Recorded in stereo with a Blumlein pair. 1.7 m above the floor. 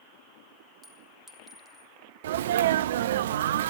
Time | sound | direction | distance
0.8 | a clink | 10° right | 4 m
2.2 | a sneeze | 60° right | 0.6 m